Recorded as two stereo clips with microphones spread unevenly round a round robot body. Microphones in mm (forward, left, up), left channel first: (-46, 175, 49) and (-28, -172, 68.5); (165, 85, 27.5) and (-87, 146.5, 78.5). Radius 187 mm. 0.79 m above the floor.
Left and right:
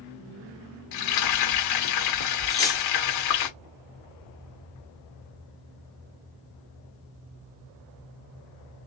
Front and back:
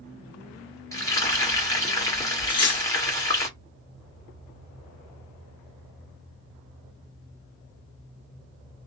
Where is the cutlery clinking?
15° left, 1.2 m.